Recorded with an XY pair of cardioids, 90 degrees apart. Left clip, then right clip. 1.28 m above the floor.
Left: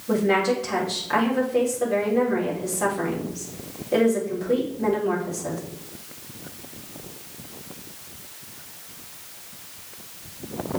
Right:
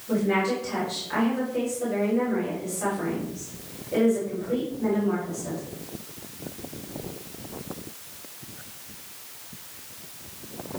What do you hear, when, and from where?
0.1 s a woman speaking: 55° left, 3.5 m